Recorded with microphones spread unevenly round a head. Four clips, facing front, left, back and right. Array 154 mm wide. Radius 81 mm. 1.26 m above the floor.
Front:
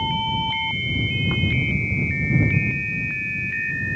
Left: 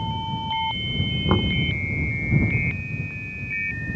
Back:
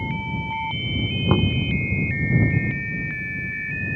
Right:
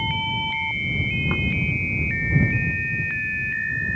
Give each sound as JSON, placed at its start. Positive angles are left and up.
{"t": 1.3, "sound": "knocking", "azimuth_deg": 155}